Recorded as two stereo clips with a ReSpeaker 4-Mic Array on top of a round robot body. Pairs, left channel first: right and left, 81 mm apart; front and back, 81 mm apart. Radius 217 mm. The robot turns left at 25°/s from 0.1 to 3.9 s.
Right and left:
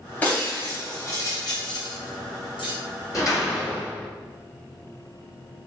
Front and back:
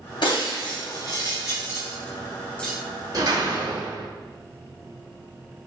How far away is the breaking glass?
About 3 m.